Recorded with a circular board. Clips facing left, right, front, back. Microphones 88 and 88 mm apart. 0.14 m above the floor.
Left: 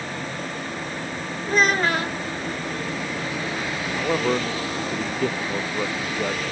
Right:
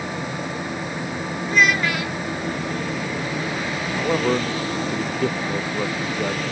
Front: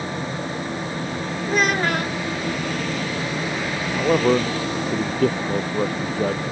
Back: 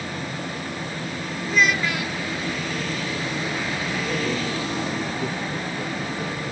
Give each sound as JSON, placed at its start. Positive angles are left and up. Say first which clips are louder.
{"t": 1.5, "sound": "a child speaking", "louder": "even, front 1 dB", "azimuth_deg": 40}
{"t": 4.0, "sound": "a man speaking", "louder": "right 2 dB, front 11 dB", "azimuth_deg": 0}